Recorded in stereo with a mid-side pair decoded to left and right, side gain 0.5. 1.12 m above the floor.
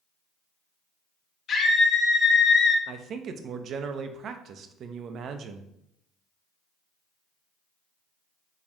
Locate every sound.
1.5 s a scream: 55° left, 1.4 m; by 2.8 s 50° left, 0.6 m
2.9 s a man speaking: 55° right, 0.5 m